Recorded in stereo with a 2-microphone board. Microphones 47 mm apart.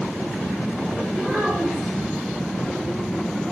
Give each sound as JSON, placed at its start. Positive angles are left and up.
{"t": 1.1, "sound": "a child speaking", "side_deg": -15, "distance_m": 2.0}